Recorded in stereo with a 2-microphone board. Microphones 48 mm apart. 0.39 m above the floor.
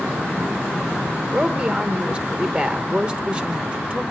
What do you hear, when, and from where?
1.3 s a woman speaking: 25° right (ahead or behind), 0.9 m